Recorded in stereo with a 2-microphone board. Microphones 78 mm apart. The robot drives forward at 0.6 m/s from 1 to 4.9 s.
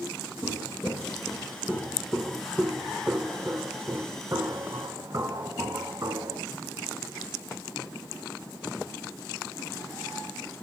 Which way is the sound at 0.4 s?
25° left (ahead or behind).